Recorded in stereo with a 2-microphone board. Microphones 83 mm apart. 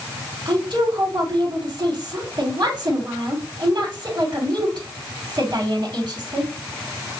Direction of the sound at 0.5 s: 60° right (ahead or behind).